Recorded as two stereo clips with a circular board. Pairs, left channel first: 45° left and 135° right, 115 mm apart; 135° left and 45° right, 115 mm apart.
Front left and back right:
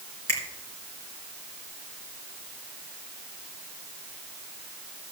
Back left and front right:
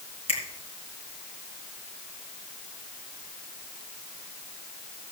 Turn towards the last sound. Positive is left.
turn(degrees=110)